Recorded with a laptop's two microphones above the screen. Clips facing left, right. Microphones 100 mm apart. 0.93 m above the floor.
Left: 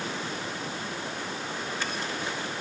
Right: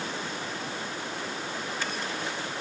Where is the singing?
I don't hear singing.